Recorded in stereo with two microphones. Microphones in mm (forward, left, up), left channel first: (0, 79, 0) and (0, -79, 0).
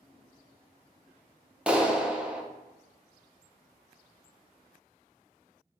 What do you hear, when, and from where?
1.7 s a clap: 5° right (ahead or behind), 0.5 m